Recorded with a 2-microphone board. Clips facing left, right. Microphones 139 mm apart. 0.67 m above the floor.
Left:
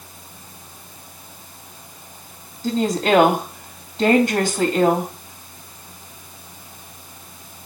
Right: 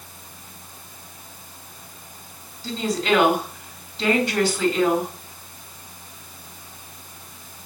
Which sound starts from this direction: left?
A woman speaking, at 2.6 s.